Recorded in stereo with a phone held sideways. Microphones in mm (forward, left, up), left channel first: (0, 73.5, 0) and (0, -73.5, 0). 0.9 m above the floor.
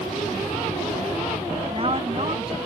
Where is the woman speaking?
40° right (ahead or behind).